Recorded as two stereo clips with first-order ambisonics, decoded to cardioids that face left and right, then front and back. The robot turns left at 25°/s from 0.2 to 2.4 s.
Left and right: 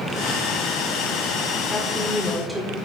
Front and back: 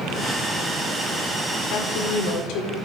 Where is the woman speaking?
10° left, 1.8 m; by 2.8 s 10° right, 1.8 m.